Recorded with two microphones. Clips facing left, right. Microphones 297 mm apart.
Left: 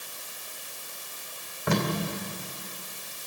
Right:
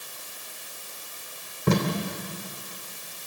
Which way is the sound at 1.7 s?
45° right (ahead or behind).